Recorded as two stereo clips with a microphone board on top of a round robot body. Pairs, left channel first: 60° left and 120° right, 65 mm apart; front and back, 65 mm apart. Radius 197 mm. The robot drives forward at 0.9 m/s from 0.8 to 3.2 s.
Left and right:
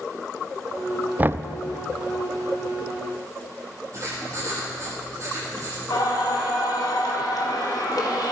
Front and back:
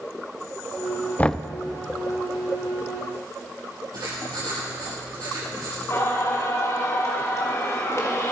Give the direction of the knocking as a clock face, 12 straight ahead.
2 o'clock.